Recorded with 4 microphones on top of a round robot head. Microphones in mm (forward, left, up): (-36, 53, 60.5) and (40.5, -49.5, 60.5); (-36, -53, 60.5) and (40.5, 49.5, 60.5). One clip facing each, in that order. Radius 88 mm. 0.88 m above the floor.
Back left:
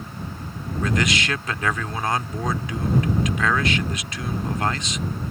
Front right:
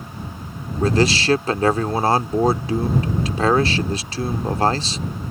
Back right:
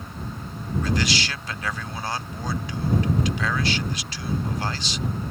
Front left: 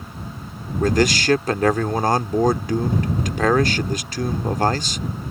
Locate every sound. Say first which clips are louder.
0.8 s a man speaking: front right 6 dB, front left 8 dB; 5° left